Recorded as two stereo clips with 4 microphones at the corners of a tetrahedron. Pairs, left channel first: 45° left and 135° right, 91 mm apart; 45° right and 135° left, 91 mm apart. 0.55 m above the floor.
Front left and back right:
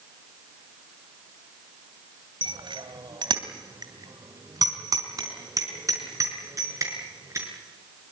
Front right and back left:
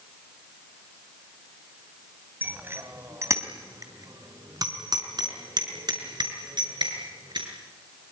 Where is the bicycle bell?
155° right, 2 m; by 7.5 s 170° left, 6.5 m.